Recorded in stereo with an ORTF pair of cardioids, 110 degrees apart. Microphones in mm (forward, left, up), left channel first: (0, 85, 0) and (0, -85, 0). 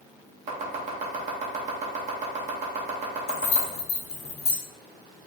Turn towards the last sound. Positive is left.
turn(degrees=40)